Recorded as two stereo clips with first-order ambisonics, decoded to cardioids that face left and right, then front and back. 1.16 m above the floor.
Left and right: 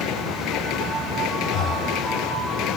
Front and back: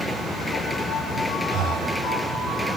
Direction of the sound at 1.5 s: 135° left.